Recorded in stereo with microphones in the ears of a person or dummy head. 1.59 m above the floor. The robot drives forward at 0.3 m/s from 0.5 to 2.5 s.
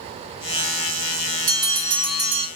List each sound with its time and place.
1.5 s a bell: 10° left (ahead or behind), 1.7 m